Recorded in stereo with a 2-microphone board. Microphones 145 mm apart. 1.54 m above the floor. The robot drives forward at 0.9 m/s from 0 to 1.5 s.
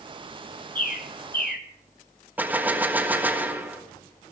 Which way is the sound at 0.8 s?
60° left (ahead or behind).